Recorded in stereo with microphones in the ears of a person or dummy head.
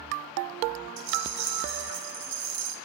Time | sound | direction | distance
1.0 | a rattle | 65° right (ahead or behind) | 3.5 m